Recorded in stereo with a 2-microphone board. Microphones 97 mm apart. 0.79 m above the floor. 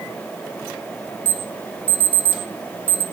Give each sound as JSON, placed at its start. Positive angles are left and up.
{"t": 1.2, "sound": "an alarm", "side_deg": 20, "distance_m": 2.5}